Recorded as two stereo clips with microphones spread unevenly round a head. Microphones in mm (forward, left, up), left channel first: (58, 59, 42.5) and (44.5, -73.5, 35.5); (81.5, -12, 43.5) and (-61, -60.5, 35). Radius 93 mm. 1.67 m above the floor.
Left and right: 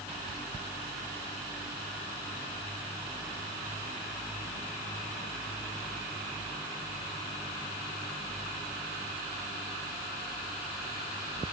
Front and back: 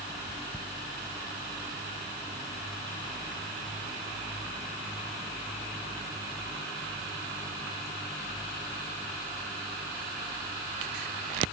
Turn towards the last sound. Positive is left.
No sound to turn to.